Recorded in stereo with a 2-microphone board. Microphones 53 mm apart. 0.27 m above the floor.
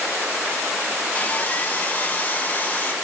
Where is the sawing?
30° left (ahead or behind), 3 m.